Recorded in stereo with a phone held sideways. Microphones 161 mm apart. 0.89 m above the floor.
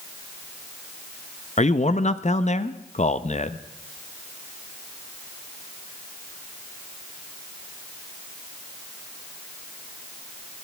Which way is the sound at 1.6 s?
45° left (ahead or behind).